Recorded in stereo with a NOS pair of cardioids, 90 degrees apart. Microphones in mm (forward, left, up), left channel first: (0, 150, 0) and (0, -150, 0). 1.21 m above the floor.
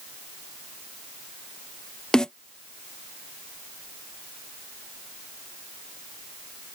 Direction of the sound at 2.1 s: Straight ahead.